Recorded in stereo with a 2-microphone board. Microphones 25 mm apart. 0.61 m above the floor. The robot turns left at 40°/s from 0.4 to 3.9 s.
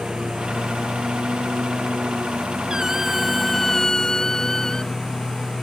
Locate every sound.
0.0 s a lawn mower: 35° right (ahead or behind); by 5.6 s 20° left (ahead or behind)
2.7 s a squeak: 155° right; by 4.9 s 155° left